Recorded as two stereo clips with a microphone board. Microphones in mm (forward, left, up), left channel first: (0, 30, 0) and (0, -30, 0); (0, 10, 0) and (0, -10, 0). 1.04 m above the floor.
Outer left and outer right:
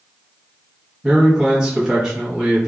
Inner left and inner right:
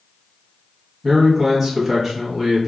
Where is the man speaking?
10° right (ahead or behind), 0.9 m.